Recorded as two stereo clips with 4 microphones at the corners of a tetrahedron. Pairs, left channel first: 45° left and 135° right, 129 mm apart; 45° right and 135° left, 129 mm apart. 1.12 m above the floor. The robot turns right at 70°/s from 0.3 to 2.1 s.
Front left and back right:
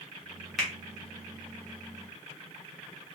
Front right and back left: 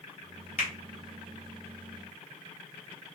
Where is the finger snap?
45° right, 1.0 m; by 0.7 s 35° right, 1.0 m.